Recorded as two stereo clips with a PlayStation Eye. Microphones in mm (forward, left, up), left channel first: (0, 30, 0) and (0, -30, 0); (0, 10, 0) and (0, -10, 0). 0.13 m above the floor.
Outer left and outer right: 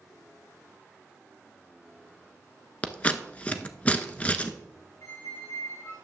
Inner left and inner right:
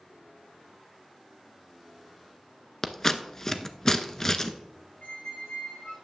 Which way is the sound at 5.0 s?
80° left.